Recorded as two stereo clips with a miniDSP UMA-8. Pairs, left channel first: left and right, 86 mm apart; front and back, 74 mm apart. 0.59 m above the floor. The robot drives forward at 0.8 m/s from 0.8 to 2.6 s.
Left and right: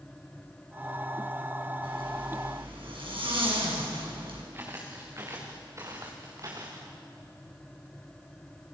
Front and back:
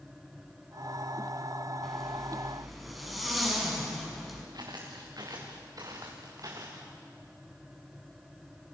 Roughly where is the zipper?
Right.